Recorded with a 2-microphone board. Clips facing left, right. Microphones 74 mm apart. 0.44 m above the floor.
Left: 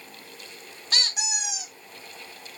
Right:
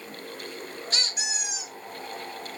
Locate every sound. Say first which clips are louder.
0.9 s a squeak: left 4 dB; 70° left (ahead or behind), 1.1 m